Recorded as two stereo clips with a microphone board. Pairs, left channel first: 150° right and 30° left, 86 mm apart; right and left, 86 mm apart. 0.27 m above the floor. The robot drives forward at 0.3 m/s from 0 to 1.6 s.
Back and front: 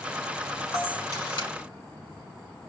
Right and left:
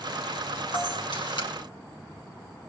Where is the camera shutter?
115° right, 4 m; by 1.5 s 120° right, 4.5 m.